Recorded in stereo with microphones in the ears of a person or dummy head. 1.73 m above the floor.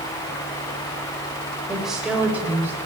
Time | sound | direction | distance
1.7 | a woman speaking | centre (ahead or behind) | 6.5 m